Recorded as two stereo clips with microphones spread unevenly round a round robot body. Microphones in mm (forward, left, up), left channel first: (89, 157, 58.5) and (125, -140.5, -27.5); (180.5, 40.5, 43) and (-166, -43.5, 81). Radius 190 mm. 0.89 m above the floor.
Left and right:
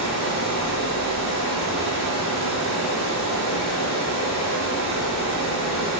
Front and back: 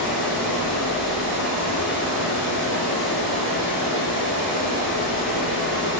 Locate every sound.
0.0 s running water: 145° left, 6.5 m